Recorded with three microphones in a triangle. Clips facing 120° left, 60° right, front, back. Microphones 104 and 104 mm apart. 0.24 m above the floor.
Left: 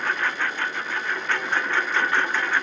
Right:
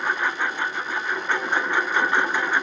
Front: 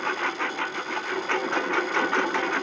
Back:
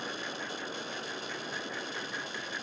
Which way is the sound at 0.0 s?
15° left.